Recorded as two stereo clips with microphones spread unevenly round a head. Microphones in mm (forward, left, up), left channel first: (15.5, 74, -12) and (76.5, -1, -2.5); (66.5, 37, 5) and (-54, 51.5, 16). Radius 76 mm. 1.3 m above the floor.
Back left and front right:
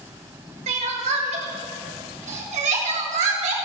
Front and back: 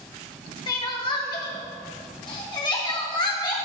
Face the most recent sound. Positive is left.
turn(degrees=-70)